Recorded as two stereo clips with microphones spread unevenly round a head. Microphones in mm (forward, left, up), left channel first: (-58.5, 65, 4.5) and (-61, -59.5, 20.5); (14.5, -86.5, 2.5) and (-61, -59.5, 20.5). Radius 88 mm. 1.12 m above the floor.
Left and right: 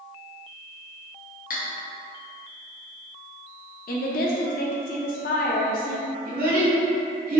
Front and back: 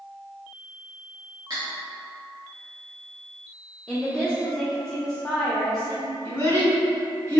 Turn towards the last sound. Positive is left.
turn(degrees=-85)